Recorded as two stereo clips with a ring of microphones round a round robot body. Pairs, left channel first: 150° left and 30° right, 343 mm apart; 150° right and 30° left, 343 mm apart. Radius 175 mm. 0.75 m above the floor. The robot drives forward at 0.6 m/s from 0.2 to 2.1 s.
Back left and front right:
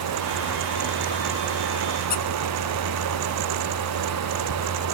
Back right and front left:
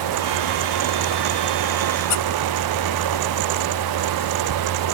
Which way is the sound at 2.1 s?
145° right.